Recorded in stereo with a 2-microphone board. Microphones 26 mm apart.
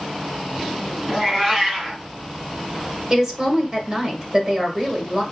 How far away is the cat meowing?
About 1.7 m.